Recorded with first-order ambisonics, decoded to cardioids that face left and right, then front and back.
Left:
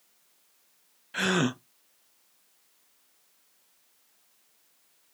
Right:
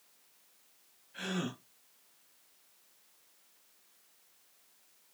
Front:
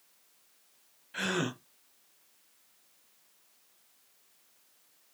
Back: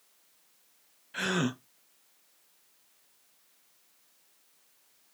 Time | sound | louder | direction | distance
1.1 | a gasp | left 12 dB, back 2 dB | 95° left | 0.6 m